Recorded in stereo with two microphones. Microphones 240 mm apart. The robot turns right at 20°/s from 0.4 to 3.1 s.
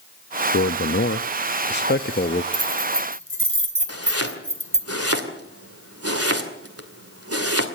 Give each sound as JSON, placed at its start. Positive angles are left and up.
{"t": 0.5, "sound": "a man speaking", "azimuth_deg": 90, "distance_m": 0.6}
{"t": 2.5, "sound": "keys jangling", "side_deg": -75, "distance_m": 3.0}
{"t": 3.9, "sound": "chopping", "side_deg": -75, "distance_m": 2.5}